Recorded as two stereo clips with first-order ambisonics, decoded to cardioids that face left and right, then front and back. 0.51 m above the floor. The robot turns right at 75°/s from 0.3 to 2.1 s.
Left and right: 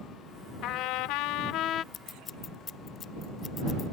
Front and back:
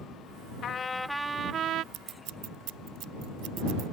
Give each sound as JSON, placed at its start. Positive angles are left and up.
{"t": 0.6, "sound": "a trumpet", "azimuth_deg": 55}
{"t": 1.9, "sound": "scissors", "azimuth_deg": 145}